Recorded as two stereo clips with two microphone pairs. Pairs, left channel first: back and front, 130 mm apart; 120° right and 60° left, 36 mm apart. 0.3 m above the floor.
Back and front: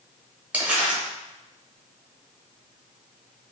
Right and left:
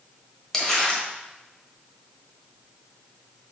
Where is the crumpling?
60° right, 0.9 m.